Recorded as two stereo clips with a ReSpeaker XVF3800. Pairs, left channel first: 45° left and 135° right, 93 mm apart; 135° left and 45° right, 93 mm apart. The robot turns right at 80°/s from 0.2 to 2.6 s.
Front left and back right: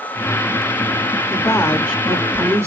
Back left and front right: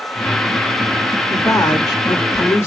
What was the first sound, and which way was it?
A woman speaking, 80° left.